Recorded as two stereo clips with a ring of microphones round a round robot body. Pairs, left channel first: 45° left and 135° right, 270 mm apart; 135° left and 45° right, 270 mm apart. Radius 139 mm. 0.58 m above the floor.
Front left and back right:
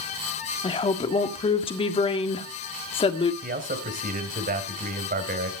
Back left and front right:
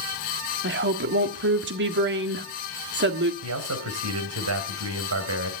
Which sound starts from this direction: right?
A man speaking, at 3.4 s.